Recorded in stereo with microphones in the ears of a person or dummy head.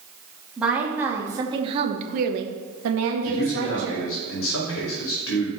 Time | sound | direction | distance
0.6 | a woman speaking | 5° right (ahead or behind) | 2 m
3.2 | a man speaking | 75° left (ahead or behind) | 2.5 m